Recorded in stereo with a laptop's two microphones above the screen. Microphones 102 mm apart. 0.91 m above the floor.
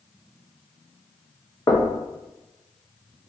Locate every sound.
1.7 s knocking: 35° left (ahead or behind), 0.5 m